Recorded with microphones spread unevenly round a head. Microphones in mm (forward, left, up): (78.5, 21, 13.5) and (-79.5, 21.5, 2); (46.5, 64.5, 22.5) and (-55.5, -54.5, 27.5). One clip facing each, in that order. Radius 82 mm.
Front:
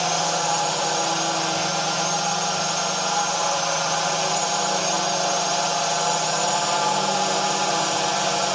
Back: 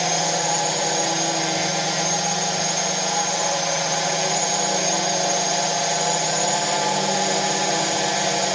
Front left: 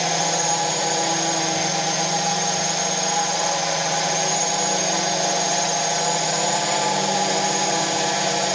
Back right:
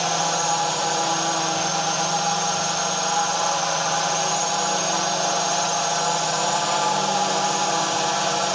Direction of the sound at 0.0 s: 115° left.